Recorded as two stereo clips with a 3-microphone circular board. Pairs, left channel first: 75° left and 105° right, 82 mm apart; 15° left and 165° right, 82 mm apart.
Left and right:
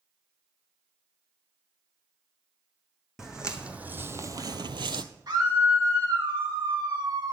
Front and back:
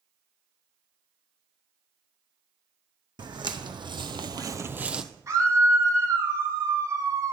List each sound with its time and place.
3.2 s footsteps: 170° left, 1.1 m; by 5.0 s 80° right, 0.6 m
5.3 s a scream: 125° right, 2 m